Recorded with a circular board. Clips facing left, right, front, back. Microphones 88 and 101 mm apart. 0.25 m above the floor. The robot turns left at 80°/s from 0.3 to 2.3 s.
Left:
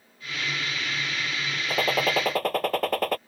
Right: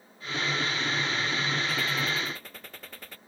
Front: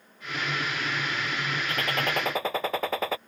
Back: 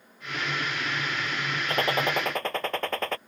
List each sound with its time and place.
1.7 s a gunshot: 135° left; by 3.2 s 85° left